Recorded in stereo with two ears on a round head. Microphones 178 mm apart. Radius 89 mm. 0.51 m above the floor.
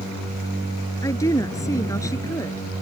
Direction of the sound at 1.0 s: 15° left (ahead or behind).